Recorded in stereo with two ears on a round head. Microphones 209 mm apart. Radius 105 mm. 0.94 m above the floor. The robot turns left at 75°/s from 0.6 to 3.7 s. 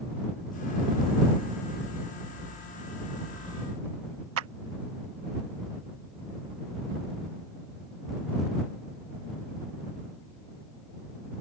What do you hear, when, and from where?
4.4 s a clap: 65° right (ahead or behind)